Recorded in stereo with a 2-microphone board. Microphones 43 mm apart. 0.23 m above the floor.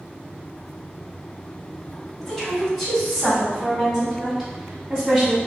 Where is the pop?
I don't hear a pop.